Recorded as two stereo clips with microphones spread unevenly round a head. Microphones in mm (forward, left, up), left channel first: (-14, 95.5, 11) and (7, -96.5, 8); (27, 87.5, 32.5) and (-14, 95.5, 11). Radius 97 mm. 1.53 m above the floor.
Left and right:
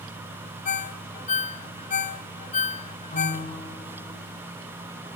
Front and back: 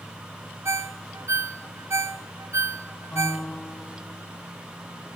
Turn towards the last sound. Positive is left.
turn(degrees=40)